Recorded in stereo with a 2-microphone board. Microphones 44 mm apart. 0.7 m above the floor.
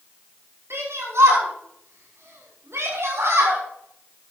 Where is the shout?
75° right (ahead or behind), 6 m; by 3.6 s 80° right, 5.5 m.